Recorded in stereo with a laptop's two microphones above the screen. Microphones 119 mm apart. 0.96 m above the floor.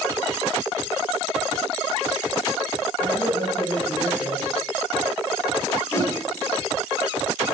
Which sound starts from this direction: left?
A whoosh, at 5.9 s.